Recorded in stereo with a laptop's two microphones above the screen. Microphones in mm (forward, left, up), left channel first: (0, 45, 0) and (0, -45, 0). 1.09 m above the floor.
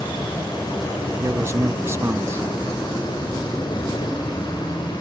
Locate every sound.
0.0 s an insect: 55° left (ahead or behind)
1.2 s a man speaking: 30° right (ahead or behind)